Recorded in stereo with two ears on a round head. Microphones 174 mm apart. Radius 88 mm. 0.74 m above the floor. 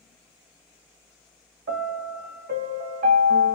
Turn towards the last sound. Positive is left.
turn(degrees=-45)  # may be behind; listen again after turning